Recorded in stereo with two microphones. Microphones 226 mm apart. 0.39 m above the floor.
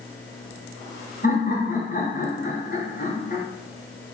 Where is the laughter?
50° left (ahead or behind), 1.5 m.